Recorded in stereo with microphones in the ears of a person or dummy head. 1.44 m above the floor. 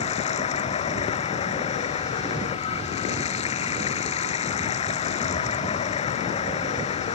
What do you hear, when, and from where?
0.0 s running water: 30° left (ahead or behind)